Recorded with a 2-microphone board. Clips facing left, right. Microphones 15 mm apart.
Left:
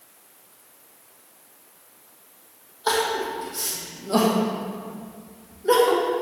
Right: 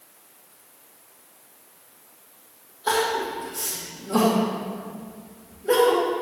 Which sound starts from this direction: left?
Crying, at 2.9 s.